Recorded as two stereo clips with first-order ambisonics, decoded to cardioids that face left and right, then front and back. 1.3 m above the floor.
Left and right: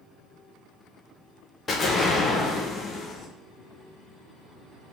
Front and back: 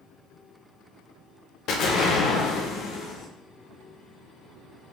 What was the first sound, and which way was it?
An explosion, 20° left.